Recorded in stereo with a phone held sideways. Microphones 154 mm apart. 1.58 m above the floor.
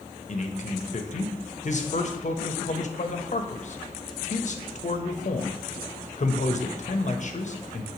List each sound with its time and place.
0.3 s a man speaking: 55° left (ahead or behind), 0.5 m